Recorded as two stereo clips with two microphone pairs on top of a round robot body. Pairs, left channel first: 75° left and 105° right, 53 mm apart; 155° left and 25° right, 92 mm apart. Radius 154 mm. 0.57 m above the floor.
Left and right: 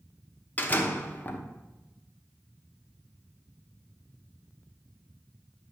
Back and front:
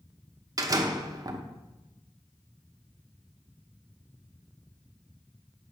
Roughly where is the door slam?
Ahead.